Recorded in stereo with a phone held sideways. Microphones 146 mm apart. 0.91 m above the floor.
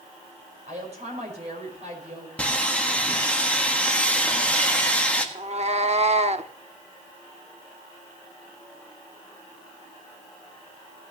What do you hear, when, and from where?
0.7 s a woman speaking: 50° right (ahead or behind), 5 m
2.4 s sawing: 10° left (ahead or behind), 1.5 m
5.3 s a cat meowing: 50° right (ahead or behind), 0.7 m